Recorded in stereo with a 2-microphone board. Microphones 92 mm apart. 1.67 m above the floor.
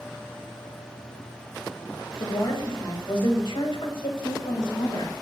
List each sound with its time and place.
2.2 s a woman speaking: 55° left (ahead or behind), 2 m; by 5.1 s 75° left (ahead or behind), 2.5 m